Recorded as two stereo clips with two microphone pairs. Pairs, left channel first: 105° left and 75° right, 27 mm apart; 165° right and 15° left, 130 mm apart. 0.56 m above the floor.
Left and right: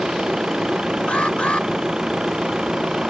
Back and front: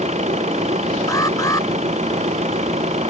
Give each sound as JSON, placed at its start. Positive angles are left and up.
{"t": 0.0, "sound": "an engine running", "azimuth_deg": -15}
{"t": 1.1, "sound": "an alarm", "azimuth_deg": 135}